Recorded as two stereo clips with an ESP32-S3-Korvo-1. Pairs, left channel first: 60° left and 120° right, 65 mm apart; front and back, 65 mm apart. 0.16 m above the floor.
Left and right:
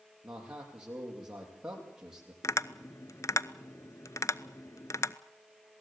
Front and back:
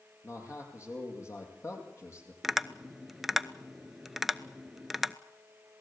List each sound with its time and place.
0.2 s a man speaking: 45° right, 6.5 m
2.4 s tapping: 95° left, 0.6 m